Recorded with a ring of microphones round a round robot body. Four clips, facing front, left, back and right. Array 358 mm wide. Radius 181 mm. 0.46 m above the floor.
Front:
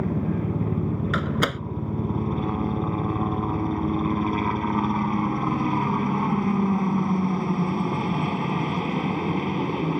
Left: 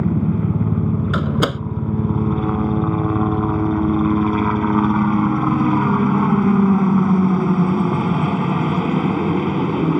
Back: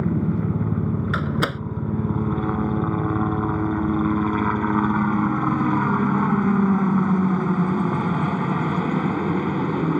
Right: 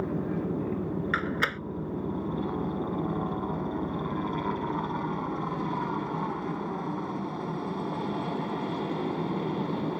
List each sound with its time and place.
0.0 s a helicopter: 105° left
1.1 s a door slam: 90° left